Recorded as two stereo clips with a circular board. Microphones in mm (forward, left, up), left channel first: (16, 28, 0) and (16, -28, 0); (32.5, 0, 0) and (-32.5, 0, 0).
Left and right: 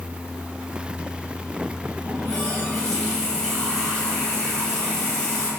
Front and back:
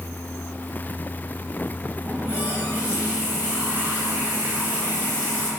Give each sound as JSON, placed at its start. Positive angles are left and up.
{"t": 2.0, "sound": "a running tap", "azimuth_deg": 160, "distance_m": 0.9}